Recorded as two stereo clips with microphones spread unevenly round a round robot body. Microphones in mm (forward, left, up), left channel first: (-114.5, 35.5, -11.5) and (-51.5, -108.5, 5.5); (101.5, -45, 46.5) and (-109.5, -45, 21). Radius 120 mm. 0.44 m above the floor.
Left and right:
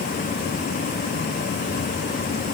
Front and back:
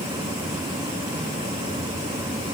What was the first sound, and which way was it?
Only background noise.